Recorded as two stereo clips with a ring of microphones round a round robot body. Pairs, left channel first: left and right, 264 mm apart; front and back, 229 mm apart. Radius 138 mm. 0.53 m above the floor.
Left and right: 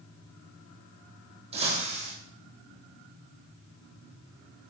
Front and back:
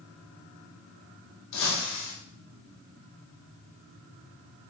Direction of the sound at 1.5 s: 20° right.